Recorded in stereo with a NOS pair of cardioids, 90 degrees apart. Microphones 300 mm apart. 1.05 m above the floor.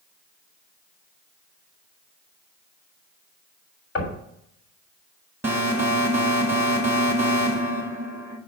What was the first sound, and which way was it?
Knocking, 45° left.